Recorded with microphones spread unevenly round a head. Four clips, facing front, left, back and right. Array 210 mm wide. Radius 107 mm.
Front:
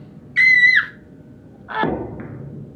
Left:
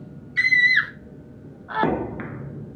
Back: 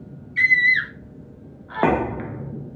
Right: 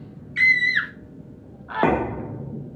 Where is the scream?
25° left, 1.8 m.